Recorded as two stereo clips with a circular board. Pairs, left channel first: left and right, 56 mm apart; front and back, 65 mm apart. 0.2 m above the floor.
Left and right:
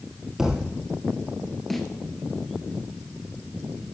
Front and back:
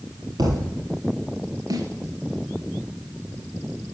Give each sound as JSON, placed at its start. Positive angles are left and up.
{"t": 0.4, "sound": "a thud", "azimuth_deg": -170, "distance_m": 2.5}
{"t": 1.7, "sound": "a snare drum", "azimuth_deg": 175, "distance_m": 2.0}